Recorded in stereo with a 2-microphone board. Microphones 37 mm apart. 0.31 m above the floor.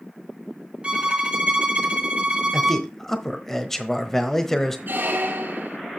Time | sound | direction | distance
0.8 | a violin | 30° right (ahead or behind) | 1.8 m
2.5 | a man speaking | 10° left (ahead or behind) | 1.2 m
4.9 | a squeak | 70° right (ahead or behind) | 1.1 m